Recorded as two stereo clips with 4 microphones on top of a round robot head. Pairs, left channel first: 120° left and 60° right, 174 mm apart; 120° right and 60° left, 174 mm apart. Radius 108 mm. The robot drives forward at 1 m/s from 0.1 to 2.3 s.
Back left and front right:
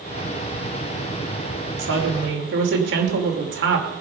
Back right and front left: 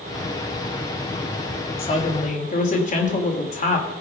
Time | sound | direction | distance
1.8 | a woman speaking | 65° right | 3 m